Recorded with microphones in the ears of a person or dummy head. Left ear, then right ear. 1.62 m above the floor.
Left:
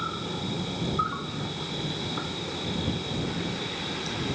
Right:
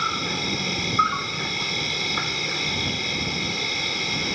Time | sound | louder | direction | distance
0.0 | an insect | right 8 dB | 70° right (ahead or behind) | ?